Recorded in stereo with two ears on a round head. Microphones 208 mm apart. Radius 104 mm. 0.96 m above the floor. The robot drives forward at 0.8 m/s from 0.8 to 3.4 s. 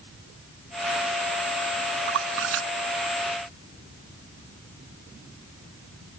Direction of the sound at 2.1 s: 50° right (ahead or behind).